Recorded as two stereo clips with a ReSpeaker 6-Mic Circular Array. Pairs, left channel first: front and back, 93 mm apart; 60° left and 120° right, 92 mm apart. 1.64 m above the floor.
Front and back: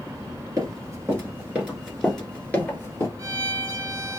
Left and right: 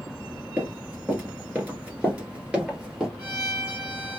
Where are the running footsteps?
175° right, 2 m; by 3.1 s 40° right, 2 m.